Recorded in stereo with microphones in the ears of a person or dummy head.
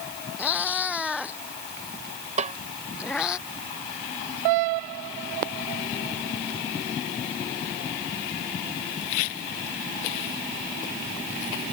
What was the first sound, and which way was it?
A cat meowing, 10° left (ahead or behind).